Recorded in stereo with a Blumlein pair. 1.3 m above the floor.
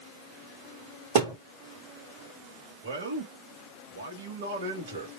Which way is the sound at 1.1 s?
55° right.